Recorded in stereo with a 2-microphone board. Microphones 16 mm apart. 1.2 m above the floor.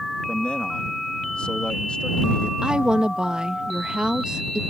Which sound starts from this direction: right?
A woman speaking, at 2.6 s.